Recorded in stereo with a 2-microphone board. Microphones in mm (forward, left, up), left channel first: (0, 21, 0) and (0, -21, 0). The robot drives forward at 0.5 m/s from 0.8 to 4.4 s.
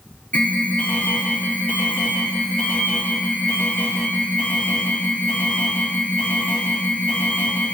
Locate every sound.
0.3 s an alarm: 40° left (ahead or behind), 2.5 m; by 7.8 s 35° left (ahead or behind), 2.5 m